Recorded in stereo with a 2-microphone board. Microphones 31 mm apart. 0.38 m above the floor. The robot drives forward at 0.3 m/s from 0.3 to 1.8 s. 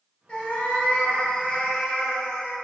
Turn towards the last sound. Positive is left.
turn(degrees=50)  # may be behind; listen again after turning